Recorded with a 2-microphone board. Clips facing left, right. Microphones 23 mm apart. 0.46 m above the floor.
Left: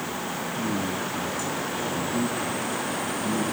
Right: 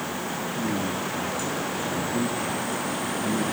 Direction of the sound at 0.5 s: 30° left (ahead or behind).